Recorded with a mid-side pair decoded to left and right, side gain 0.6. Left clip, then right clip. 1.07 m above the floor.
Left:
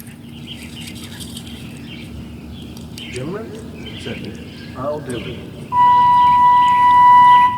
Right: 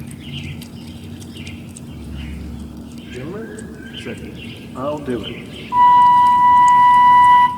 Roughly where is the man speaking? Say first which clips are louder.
Left 2 dB; ahead.